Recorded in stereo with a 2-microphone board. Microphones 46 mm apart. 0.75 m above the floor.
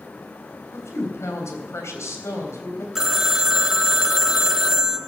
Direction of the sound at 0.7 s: 80° left.